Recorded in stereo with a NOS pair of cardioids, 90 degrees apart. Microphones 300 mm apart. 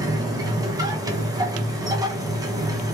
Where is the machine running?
10° right, 0.8 m.